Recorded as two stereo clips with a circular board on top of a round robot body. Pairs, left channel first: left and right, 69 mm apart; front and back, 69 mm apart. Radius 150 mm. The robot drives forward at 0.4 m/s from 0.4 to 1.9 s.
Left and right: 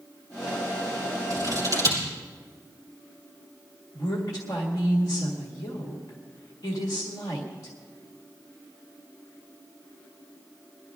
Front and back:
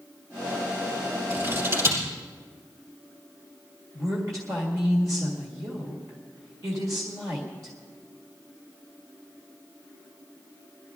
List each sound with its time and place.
1.3 s scissors: 125° right, 4 m; by 2.0 s 130° right, 4 m
3.9 s a woman speaking: 135° left, 1.9 m